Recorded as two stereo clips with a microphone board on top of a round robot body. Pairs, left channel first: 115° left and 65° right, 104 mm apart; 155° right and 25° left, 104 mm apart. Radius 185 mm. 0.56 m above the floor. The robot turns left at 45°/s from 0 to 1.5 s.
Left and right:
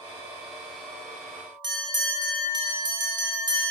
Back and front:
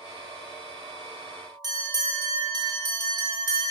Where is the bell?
25° right, 2.5 m.